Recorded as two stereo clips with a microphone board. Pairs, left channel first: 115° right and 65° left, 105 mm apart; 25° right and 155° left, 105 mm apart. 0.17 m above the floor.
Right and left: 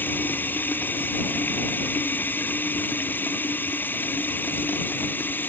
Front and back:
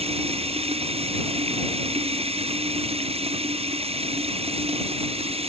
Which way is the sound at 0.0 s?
175° left.